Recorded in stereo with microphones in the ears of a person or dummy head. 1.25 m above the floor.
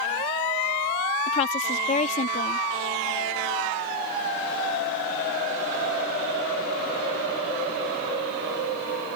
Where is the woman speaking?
35° left (ahead or behind).